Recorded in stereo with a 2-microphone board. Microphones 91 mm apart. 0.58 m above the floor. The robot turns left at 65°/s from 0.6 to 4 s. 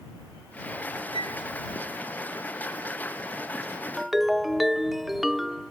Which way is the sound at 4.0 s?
5° right (ahead or behind).